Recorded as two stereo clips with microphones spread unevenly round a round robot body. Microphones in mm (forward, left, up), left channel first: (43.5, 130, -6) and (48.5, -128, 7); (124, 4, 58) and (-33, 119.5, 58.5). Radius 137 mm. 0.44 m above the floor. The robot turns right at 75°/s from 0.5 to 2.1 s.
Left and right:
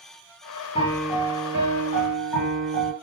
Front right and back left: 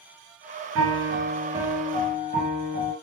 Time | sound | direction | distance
0.8 | a piano | 160° left | 1.4 m